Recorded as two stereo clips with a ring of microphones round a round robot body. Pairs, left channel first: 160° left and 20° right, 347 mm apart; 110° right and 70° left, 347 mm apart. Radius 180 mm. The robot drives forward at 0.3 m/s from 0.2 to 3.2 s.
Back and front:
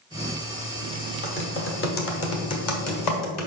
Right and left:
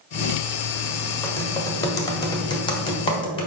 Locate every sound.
1.2 s typing on a keyboard: 170° left, 1.4 m; by 3.5 s 175° left, 1.8 m